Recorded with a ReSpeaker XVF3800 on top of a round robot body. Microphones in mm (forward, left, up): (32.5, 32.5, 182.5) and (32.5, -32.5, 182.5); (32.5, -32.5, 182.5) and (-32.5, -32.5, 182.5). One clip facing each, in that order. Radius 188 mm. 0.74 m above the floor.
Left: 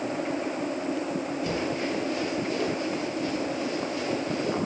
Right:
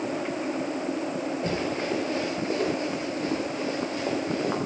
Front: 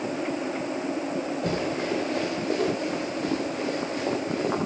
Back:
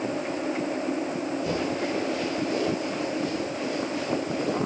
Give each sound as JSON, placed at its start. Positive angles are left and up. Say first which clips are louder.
{"t": 1.4, "sound": "running footsteps", "louder": "right 1 dB, even", "azimuth_deg": -35, "distance_m": 7.5}